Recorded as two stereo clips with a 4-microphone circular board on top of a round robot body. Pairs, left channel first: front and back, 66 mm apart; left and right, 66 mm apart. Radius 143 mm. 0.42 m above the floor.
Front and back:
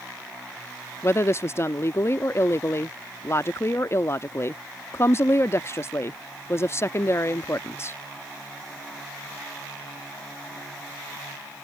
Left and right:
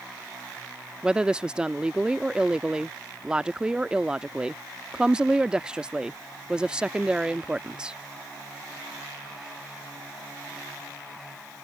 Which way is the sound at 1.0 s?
20° right.